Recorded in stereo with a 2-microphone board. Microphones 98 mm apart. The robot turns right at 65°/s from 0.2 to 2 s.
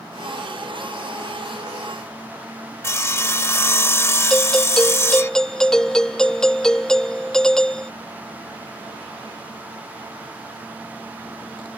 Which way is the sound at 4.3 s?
5° left (ahead or behind).